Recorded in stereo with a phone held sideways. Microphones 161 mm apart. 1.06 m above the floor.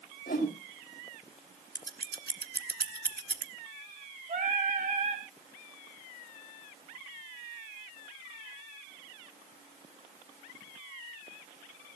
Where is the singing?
50° right (ahead or behind), 2.5 m.